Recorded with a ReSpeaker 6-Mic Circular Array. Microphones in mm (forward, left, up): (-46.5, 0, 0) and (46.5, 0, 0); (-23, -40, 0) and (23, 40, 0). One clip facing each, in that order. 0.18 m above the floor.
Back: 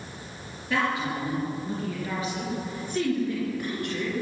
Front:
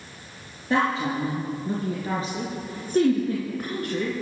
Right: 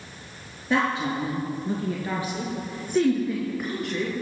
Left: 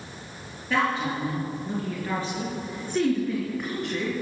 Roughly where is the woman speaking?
Ahead right.